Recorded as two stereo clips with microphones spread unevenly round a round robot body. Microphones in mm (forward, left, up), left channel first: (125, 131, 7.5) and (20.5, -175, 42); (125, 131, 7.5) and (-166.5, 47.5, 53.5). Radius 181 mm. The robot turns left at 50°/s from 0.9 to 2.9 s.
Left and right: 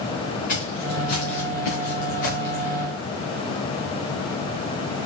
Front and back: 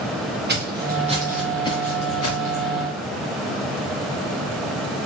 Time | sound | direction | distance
0.5 | footsteps | 140° left | 3.5 m